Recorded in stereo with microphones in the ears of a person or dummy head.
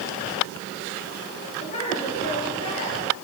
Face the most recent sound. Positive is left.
turn(degrees=35)  # may be behind; listen again after turning